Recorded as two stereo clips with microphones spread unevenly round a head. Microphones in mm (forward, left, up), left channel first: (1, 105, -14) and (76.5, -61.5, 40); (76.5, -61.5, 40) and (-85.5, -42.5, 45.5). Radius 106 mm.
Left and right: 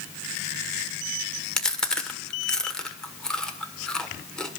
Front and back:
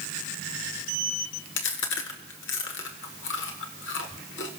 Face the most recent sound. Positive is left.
turn(degrees=20)